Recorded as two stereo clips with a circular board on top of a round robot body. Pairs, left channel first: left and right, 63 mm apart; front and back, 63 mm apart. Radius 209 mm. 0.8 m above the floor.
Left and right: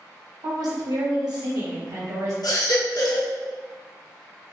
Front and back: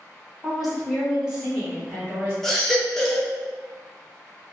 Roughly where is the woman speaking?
Right.